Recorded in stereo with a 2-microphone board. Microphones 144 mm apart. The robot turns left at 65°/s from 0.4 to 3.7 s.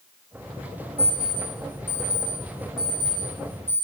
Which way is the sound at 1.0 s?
65° left (ahead or behind).